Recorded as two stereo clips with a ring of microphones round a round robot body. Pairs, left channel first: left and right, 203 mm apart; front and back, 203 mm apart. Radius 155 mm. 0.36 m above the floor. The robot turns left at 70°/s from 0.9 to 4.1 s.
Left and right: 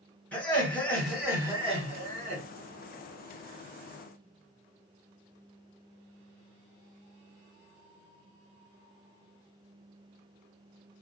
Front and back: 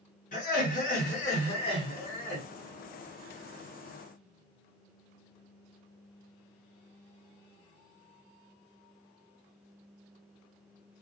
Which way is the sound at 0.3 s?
10° left.